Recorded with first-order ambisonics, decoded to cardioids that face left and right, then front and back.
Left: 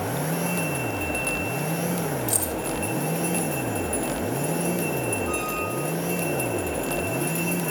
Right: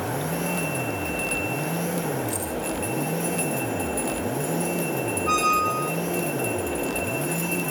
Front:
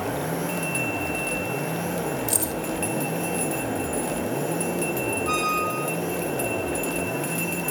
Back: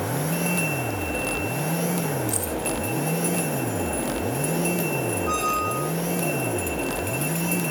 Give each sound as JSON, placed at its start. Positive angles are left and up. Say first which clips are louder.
{"t": 2.3, "sound": "keys jangling", "louder": "left 2 dB, front 1 dB", "azimuth_deg": 25, "distance_m": 3.0}
{"t": 5.3, "sound": "a squeak", "louder": "right 6 dB, even", "azimuth_deg": -75, "distance_m": 1.5}